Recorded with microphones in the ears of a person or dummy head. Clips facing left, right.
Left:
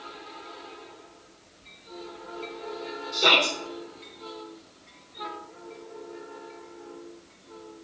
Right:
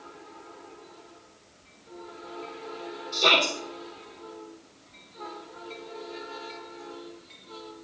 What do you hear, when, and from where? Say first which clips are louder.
3.1 s a shout: even; 10° left (ahead or behind), 1.4 m